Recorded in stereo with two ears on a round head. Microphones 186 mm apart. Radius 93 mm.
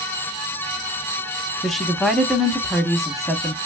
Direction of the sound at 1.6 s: Centre (ahead or behind).